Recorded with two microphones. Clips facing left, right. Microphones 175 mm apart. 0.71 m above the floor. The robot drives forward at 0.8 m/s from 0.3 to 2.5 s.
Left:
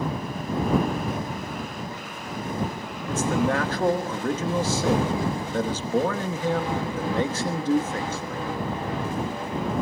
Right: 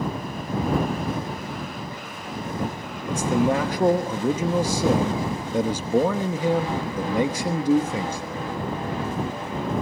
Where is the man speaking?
15° right (ahead or behind), 1.0 m.